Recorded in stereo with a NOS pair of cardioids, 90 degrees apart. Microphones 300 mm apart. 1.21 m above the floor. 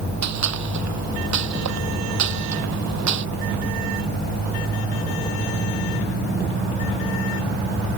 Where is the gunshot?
60° right.